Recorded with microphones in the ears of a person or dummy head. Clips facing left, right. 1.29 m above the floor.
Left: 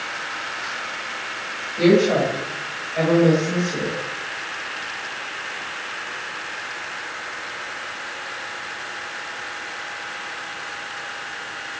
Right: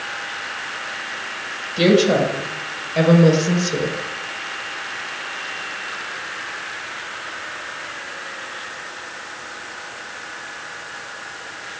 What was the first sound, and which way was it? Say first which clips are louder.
A woman speaking: right 1 dB; 50° right (ahead or behind).